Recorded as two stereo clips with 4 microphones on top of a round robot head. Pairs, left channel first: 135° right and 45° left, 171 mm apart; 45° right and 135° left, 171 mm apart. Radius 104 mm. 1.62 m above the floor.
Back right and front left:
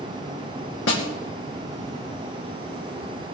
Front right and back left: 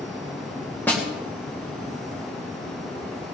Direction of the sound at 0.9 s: 125° right.